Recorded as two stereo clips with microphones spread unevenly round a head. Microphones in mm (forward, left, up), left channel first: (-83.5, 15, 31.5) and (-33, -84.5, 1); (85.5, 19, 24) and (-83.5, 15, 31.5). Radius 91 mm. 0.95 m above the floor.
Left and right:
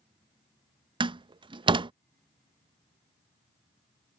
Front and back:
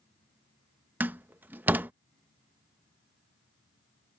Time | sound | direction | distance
1.0 | a door slam | 100° right | ?